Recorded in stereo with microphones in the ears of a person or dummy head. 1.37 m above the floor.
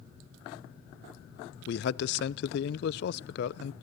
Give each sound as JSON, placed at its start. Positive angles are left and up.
{"t": 1.7, "sound": "a man speaking", "side_deg": 60, "distance_m": 0.8}